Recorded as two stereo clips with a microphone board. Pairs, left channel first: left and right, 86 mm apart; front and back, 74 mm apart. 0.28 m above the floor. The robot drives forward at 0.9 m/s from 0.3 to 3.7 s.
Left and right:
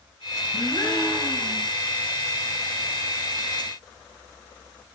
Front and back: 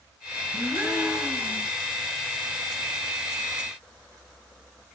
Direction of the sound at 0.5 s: 120° left.